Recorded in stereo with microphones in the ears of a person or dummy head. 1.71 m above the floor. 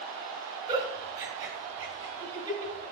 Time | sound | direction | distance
0.7 | a giggle | 25° right (ahead or behind) | 4.5 m